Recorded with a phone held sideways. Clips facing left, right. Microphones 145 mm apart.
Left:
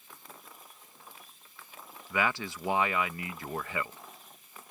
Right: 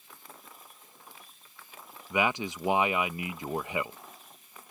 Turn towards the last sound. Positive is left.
turn(degrees=-20)  # may be behind; listen again after turning